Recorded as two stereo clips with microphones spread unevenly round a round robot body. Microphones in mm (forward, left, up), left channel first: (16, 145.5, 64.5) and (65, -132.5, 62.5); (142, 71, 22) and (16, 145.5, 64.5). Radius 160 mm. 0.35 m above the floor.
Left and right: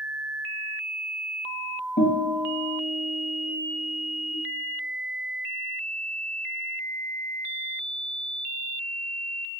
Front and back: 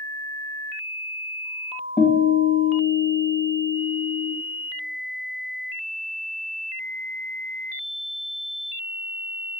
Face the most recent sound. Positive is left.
turn(degrees=45)